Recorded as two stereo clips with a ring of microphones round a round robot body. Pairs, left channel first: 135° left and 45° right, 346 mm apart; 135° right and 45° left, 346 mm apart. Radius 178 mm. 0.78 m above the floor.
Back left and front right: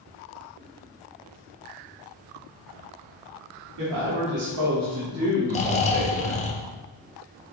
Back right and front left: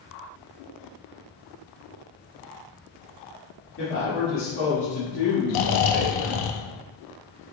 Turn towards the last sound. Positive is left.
turn(degrees=-155)